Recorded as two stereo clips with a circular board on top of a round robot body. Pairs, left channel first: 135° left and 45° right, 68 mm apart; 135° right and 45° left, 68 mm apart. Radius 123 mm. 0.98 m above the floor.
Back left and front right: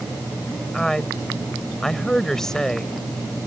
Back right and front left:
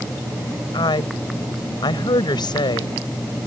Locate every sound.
0.7 s a woman speaking: 140° right